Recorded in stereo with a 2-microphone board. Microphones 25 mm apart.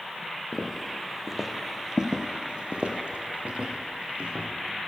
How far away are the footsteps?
About 1.3 m.